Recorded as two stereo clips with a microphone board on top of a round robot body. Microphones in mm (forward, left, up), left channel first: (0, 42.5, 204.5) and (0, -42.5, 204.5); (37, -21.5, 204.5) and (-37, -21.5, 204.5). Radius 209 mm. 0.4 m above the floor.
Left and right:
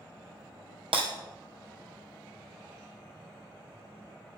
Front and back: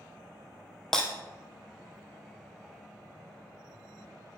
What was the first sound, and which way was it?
Breaking glass, 85° right.